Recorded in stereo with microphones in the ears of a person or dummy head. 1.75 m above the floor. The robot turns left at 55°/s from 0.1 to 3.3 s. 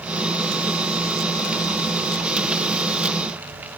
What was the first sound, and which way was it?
Only background noise.